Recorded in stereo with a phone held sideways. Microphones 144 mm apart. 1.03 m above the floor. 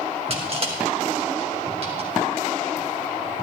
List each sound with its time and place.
0.3 s crushing: 45° right (ahead or behind), 4.5 m